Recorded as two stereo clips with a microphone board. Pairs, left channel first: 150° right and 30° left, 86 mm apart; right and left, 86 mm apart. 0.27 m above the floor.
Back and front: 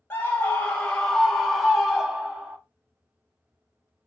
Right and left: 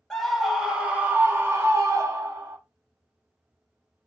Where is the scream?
170° right, 1.0 m; by 2.6 s 105° left, 1.6 m.